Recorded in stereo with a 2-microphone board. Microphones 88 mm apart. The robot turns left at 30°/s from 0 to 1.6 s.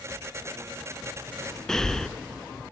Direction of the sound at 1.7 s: 5° left (ahead or behind).